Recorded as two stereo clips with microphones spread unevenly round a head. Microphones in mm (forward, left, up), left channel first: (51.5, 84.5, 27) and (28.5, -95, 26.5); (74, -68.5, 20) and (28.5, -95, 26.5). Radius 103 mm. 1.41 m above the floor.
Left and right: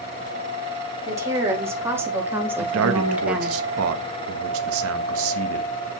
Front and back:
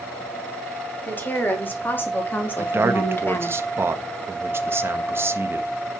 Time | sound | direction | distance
1.1 | a woman speaking | 20° right | 4 m
2.6 | a man speaking | 110° right | 1.5 m